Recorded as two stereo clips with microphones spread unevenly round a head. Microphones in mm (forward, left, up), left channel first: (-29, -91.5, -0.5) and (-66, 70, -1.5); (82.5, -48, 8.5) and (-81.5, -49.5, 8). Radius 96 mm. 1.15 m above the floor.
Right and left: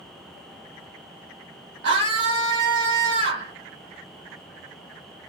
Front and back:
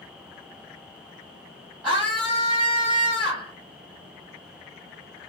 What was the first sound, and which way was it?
A scream, 90° left.